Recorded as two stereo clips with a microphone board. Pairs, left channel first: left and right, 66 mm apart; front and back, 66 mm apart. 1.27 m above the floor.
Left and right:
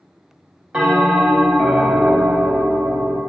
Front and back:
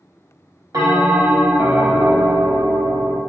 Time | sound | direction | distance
0.7 | a bell | 160° right | 1.1 m